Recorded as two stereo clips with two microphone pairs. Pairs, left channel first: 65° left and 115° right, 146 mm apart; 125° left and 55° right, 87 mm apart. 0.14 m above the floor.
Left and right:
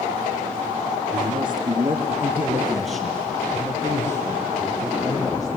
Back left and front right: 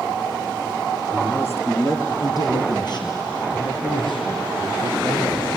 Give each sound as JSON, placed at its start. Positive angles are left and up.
{"t": 1.1, "sound": "a man speaking", "azimuth_deg": -160, "distance_m": 3.5}